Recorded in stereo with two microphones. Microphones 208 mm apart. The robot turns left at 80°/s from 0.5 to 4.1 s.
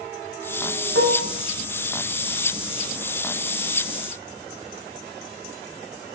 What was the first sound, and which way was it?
Dishes clattering, 70° right (ahead or behind).